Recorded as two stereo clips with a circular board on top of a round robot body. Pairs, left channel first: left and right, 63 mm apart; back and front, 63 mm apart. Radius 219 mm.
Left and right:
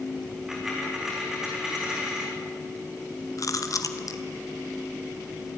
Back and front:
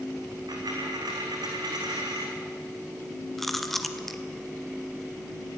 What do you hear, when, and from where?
0.5 s a dropped coin: 5° right, 4 m
3.4 s chewing: 95° left, 2 m